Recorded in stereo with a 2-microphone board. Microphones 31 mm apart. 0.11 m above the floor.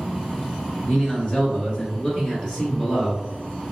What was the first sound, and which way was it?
A man speaking, 40° left (ahead or behind).